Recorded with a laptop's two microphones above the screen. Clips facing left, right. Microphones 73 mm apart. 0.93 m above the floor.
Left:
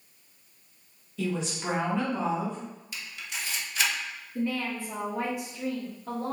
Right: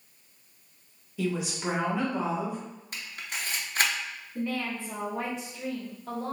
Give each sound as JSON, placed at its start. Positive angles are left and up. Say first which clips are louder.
{"t": 1.2, "sound": "a woman speaking", "louder": "right 1 dB", "side_deg": -10, "distance_m": 1.2}
{"t": 2.9, "sound": "a camera shutter", "louder": "right 4 dB", "side_deg": -45, "distance_m": 0.7}
{"t": 4.3, "sound": "a woman speaking", "louder": "left 2 dB", "side_deg": 15, "distance_m": 1.3}